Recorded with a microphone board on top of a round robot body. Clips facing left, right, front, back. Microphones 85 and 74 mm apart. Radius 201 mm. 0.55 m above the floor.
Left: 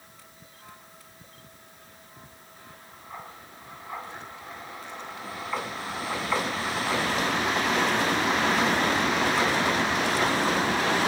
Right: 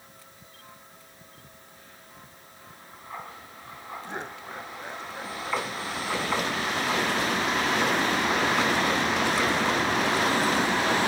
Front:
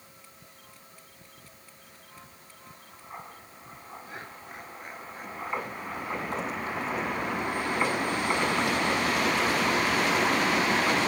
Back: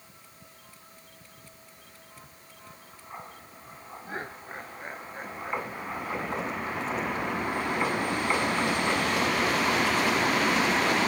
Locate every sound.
4.0 s laughter: 125° right